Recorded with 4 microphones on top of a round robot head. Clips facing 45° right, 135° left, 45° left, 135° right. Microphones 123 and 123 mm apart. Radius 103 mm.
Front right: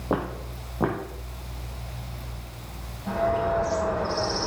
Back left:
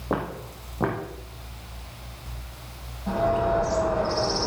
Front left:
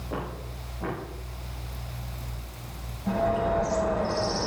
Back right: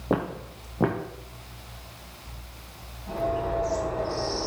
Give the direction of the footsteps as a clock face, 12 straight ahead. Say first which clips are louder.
Front right 1 dB, back right 8 dB; 4 o'clock.